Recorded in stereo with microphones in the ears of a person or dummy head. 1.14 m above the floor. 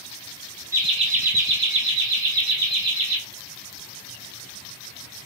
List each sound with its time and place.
0.7 s laughter: 10° right (ahead or behind), 0.7 m; by 3.2 s 75° right (ahead or behind), 2.5 m